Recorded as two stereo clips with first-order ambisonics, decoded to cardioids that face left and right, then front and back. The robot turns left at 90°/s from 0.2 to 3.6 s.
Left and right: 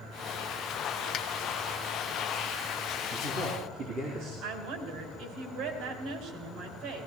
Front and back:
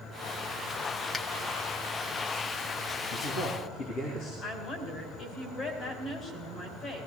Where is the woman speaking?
60° right, 3.5 m.